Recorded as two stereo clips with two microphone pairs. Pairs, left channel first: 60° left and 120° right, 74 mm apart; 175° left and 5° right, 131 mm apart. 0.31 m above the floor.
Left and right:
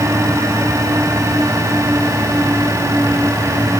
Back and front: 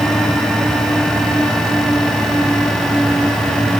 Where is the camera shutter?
I don't hear a camera shutter.